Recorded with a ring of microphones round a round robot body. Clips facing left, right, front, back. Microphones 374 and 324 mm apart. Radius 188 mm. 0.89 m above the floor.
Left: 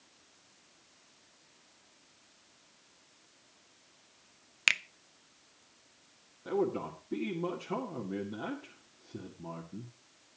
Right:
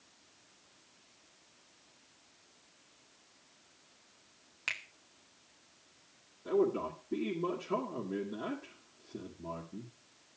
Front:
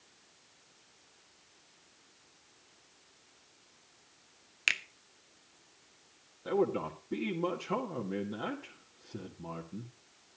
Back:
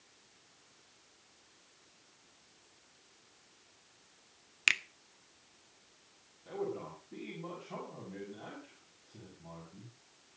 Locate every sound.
4.7 s a finger snap: 105° left, 0.7 m
6.5 s a man speaking: 5° left, 2 m